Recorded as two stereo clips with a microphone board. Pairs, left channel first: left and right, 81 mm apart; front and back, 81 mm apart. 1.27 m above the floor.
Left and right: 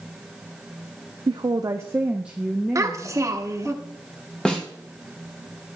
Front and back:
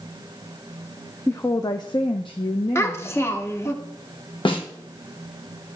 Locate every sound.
1.3 s a woman speaking: 65° right, 0.5 m; by 3.8 s 15° left, 1.4 m
2.8 s a child speaking: 50° right, 0.9 m
4.5 s a snare drum: 10° left, 1.2 m